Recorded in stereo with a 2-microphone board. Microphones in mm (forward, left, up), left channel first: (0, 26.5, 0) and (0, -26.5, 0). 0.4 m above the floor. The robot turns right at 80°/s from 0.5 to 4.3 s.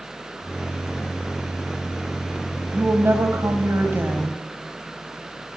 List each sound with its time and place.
2.7 s a woman speaking: 155° right, 2.5 m; by 4.4 s 30° right, 2.5 m